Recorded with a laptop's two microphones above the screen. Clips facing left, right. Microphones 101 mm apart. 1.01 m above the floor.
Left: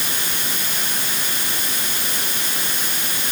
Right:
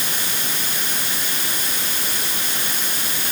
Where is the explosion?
No explosion in this recording.